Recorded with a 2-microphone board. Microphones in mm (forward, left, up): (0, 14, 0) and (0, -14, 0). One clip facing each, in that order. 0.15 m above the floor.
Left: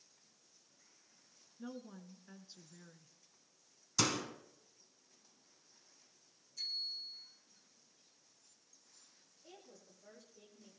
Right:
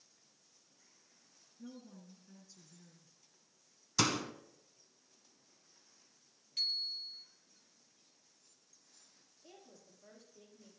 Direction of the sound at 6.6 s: 75° right (ahead or behind).